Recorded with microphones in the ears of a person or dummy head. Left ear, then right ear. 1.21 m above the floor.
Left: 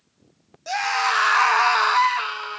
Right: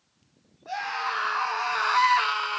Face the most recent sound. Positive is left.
turn(degrees=-35)  # may be behind; listen again after turning